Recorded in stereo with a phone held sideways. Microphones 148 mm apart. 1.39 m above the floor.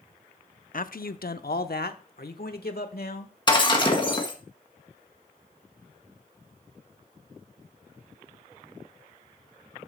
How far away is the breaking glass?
About 1.6 m.